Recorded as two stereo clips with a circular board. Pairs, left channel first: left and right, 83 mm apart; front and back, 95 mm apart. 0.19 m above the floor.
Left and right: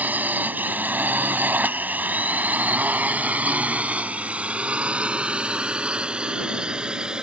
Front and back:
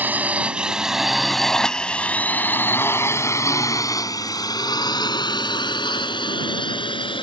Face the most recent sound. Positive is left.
turn(degrees=-10)